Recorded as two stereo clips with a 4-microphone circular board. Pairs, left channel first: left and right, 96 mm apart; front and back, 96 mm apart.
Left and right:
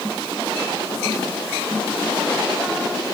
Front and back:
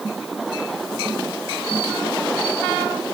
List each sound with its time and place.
Only background noise.